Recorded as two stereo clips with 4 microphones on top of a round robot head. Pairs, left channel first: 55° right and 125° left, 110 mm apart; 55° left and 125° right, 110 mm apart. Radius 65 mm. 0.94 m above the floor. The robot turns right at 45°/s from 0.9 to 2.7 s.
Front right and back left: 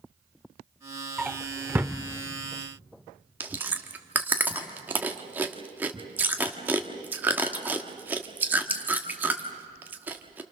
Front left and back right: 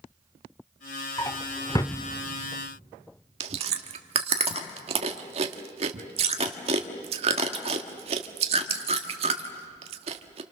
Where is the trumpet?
I don't hear a trumpet.